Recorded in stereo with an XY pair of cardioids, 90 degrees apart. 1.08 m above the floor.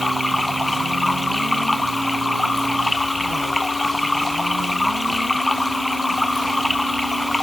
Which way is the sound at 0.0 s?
10° left.